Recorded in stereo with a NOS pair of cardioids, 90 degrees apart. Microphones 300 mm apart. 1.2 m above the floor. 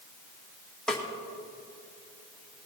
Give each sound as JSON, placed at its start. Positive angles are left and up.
{"t": 0.9, "sound": "a snare drum", "azimuth_deg": 0, "distance_m": 2.0}